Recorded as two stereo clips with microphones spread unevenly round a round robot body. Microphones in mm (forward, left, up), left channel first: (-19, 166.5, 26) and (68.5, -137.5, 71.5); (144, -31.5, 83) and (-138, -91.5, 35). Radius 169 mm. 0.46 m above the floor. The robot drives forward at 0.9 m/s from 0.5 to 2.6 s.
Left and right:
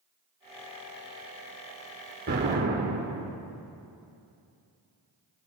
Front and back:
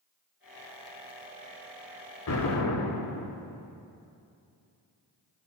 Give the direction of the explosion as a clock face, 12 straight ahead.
12 o'clock.